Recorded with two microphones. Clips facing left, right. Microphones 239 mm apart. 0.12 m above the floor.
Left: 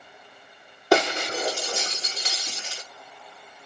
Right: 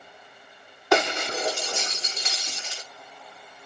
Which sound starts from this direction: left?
Breaking glass, at 0.9 s.